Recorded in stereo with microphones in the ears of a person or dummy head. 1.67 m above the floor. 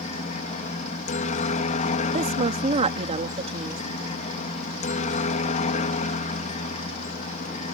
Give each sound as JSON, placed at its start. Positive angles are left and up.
{"t": 0.0, "sound": "a helicopter", "side_deg": 35}
{"t": 2.1, "sound": "a woman speaking", "side_deg": -30}